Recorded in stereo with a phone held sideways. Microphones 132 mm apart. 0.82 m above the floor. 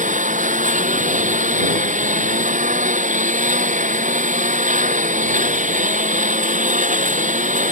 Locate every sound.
0.0 s a lawn mower: 75° right (ahead or behind)